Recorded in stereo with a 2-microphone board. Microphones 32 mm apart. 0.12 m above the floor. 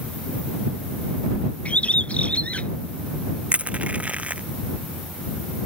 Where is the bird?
45° left (ahead or behind).